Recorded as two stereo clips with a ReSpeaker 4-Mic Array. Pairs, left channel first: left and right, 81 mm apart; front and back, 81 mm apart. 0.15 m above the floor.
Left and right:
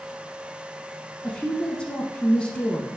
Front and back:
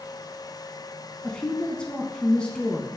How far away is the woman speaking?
About 1.0 m.